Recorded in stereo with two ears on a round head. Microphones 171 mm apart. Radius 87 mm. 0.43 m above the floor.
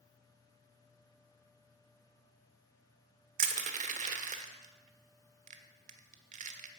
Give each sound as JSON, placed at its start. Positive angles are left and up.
{"t": 3.4, "sound": "crushing", "side_deg": -40, "distance_m": 1.3}